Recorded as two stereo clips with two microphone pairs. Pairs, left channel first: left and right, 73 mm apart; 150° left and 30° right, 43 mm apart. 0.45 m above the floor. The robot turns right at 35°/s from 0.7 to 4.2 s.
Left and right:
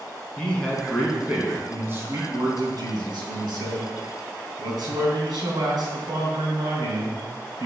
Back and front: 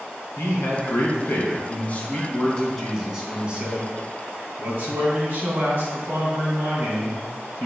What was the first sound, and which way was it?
A man speaking, 165° left.